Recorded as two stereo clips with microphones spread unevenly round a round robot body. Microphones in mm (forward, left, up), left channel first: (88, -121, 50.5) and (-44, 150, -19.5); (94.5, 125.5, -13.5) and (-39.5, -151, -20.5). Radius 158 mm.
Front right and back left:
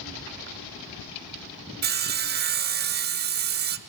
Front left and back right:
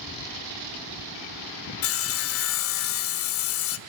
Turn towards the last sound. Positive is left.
turn(degrees=95)